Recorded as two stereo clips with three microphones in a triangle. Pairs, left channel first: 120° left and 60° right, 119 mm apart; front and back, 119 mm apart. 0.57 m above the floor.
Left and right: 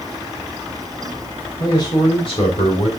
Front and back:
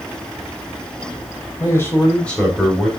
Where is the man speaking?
65° left, 3 m; by 2.9 s 90° left, 3.5 m.